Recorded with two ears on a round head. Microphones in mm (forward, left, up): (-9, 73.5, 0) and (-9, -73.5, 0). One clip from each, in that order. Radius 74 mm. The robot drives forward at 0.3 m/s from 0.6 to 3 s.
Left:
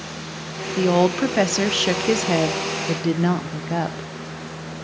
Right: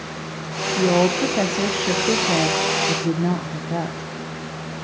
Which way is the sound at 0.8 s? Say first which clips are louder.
Even; 55° left (ahead or behind).